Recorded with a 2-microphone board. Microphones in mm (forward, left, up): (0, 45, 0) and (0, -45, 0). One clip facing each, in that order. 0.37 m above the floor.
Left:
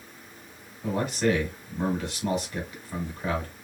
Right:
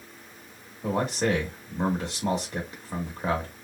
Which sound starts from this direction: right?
A man speaking, at 0.8 s.